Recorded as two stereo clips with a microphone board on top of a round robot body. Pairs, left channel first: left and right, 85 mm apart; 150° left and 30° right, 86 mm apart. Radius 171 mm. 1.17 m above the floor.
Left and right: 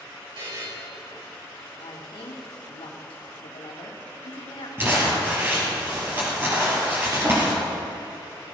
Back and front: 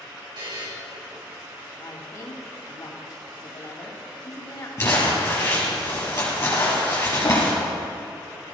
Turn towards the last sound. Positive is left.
turn(degrees=-155)